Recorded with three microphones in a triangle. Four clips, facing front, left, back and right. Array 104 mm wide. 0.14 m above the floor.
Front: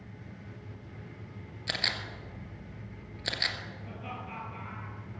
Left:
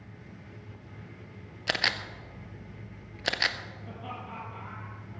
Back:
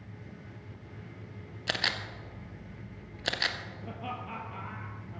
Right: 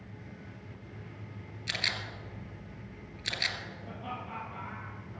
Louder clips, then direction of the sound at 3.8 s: Even, back 5 dB; straight behind.